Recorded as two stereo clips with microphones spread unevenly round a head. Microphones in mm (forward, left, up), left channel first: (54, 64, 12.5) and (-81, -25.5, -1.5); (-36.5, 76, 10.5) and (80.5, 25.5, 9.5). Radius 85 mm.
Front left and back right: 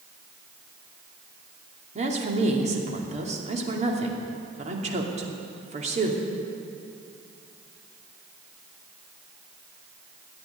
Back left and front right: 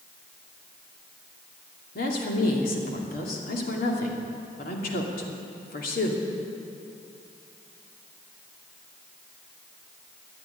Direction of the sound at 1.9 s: 170° left.